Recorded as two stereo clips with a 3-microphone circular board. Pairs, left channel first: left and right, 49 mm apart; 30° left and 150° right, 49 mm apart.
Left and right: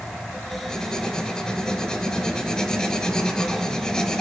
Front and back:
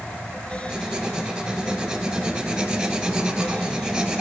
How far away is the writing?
About 1.0 m.